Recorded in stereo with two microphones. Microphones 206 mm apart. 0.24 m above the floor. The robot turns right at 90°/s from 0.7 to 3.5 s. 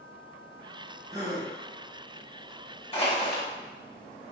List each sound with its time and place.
1.1 s a gasp: 20° right (ahead or behind), 1.1 m; by 1.5 s 15° right (ahead or behind), 1.1 m
2.9 s crushing: 60° left, 1.3 m; by 3.4 s 105° left, 1.3 m